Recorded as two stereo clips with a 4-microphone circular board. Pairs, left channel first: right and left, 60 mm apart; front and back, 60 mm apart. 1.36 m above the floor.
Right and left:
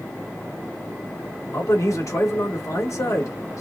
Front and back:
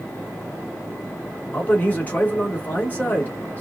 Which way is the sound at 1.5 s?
60° right.